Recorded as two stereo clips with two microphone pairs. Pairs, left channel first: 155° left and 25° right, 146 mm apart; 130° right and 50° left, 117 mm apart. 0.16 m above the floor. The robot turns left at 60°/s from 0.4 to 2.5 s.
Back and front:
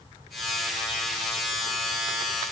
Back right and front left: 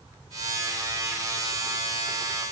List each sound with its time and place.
Only background noise.